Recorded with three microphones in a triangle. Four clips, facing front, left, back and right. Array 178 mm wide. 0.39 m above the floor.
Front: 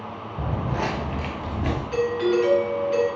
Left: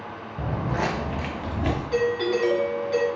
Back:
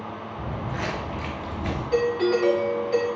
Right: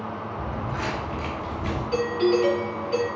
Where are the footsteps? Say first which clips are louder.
Left 6 dB, front 5 dB; 30° left, 0.9 m; by 1.8 s 55° left, 1.8 m.